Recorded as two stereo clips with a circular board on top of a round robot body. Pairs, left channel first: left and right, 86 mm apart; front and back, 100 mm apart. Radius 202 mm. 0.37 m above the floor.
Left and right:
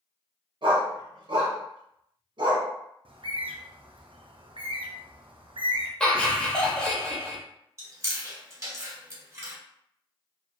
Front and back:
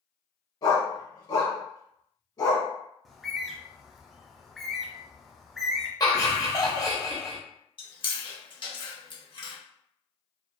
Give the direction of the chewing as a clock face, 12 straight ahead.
1 o'clock.